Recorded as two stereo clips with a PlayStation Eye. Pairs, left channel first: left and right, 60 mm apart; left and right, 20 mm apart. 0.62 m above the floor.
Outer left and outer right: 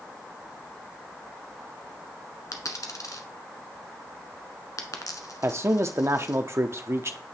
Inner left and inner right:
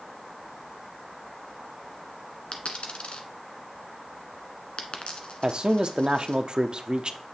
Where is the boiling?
No boiling in this recording.